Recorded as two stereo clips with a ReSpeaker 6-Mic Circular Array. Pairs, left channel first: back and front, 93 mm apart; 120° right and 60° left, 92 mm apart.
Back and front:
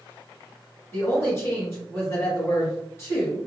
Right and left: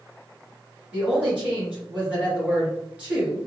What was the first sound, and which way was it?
A woman speaking, 130° left.